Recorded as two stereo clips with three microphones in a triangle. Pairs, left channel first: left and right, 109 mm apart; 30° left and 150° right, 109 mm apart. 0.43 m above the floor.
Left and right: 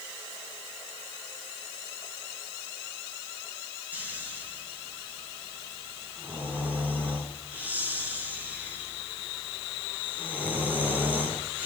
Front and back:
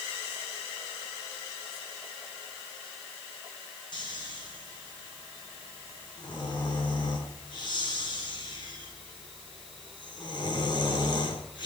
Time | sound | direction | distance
3.9 | snoring | 15° right | 4.5 m